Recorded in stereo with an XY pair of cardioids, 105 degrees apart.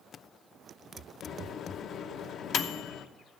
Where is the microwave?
70° left, 0.8 m.